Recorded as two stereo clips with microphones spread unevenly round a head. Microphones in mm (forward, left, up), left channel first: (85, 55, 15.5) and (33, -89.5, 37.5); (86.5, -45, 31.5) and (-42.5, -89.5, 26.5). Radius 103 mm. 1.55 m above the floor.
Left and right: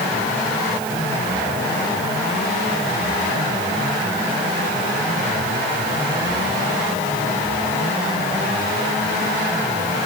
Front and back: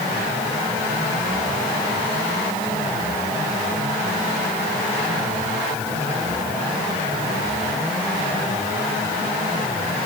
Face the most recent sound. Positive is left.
No sound to turn to.